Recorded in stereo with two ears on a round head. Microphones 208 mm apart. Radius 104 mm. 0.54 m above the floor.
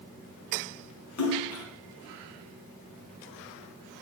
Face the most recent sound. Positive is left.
turn(degrees=70)  # may be behind; listen again after turning